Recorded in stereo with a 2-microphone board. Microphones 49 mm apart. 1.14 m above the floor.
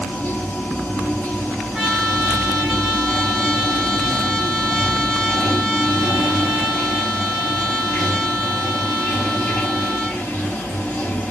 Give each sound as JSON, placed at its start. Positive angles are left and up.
{"t": 0.0, "sound": "running water", "side_deg": 35, "distance_m": 1.7}
{"t": 1.7, "sound": "a trumpet", "side_deg": -5, "distance_m": 2.5}